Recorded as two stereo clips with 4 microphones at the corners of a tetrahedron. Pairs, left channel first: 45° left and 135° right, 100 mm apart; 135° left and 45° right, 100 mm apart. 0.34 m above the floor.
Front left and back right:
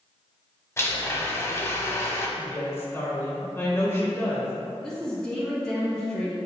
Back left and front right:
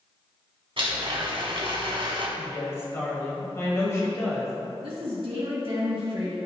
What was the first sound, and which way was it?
A blender, 20° right.